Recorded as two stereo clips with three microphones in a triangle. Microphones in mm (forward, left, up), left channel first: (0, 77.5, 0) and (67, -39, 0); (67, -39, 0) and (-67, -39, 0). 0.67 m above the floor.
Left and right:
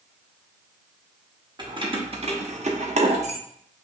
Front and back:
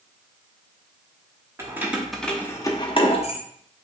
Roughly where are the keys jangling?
Right.